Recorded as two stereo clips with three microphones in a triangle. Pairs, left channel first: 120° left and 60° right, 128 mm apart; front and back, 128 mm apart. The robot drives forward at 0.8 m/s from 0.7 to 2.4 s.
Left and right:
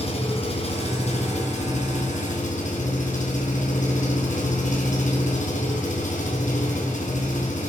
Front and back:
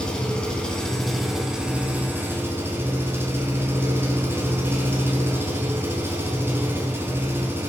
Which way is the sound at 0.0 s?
85° left.